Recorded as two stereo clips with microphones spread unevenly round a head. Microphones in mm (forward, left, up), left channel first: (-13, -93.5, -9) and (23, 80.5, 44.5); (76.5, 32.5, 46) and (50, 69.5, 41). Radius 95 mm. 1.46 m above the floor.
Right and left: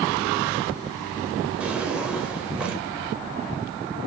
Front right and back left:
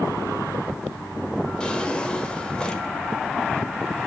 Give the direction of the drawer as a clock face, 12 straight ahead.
12 o'clock.